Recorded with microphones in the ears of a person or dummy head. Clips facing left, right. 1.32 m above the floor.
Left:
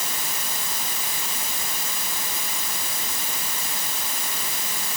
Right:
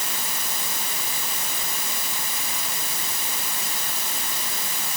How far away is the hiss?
I don't hear a hiss.